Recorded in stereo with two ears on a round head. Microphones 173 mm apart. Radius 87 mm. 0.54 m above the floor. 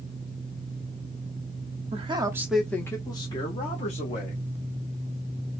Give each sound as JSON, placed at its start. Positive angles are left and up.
{"t": 1.9, "sound": "a man speaking", "side_deg": -35, "distance_m": 0.9}